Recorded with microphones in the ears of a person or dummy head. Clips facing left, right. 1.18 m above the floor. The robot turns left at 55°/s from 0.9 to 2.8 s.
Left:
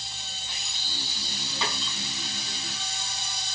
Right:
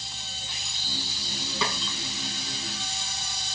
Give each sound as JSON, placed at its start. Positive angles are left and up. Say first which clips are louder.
{"t": 1.6, "sound": "a snare drum", "louder": "right 2 dB", "side_deg": -65, "distance_m": 4.5}